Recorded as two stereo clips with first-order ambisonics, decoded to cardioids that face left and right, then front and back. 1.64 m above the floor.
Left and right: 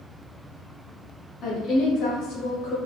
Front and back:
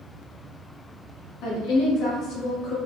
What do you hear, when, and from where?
1.4 s a woman speaking: 35° left, 1.7 m; by 2.8 s 60° left, 3 m